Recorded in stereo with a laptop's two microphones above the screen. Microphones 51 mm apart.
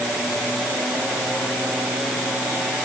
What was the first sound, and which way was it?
Only background noise.